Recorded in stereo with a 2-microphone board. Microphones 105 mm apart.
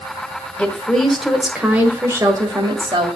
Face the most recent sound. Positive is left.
turn(degrees=-45)  # may be behind; listen again after turning